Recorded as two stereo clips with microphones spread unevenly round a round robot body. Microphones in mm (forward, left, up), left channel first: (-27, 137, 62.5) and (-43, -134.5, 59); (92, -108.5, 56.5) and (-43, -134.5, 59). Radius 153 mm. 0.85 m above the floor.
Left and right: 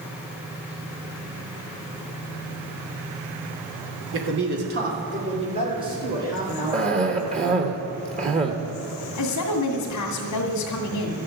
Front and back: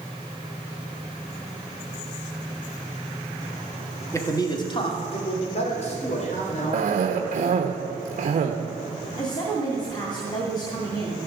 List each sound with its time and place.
4.1 s a man speaking: 55° right, 2 m; by 7.7 s 10° right, 5.5 m
6.7 s a cough: 160° right, 1.0 m
9.2 s a woman speaking: 75° left, 2 m